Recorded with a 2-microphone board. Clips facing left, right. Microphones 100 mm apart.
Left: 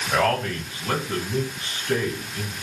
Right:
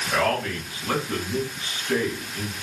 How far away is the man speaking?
About 2 m.